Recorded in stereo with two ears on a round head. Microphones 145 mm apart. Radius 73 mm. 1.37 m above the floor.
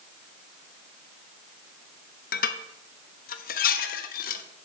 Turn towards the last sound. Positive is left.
turn(degrees=60)  # may be behind; listen again after turning